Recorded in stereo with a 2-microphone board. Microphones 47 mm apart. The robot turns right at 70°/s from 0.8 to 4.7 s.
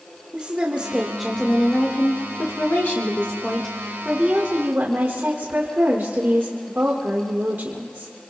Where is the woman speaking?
30° right, 1.5 m; by 8.1 s 120° right, 1.5 m.